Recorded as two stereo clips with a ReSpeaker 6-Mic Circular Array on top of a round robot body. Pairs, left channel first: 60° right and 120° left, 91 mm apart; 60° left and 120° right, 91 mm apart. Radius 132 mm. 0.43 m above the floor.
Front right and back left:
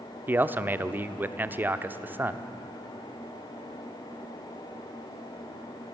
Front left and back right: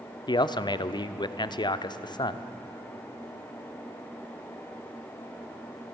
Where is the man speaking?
55° left, 1.0 m.